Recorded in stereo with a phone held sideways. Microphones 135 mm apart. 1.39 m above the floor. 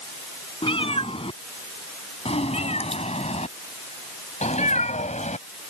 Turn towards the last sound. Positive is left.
turn(degrees=70)  # may be behind; listen again after turning